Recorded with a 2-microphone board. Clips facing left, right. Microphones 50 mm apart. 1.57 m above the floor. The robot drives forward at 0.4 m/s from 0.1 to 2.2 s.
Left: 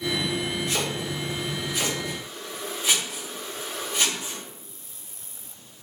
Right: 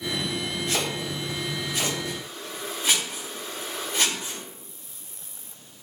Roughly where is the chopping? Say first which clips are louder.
Even; right.